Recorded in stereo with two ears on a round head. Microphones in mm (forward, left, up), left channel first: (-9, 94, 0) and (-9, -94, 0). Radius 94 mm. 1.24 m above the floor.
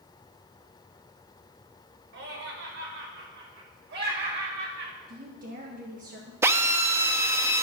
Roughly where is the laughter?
Right.